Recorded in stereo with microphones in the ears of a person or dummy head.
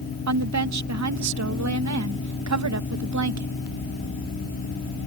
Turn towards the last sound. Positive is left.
turn(degrees=-80)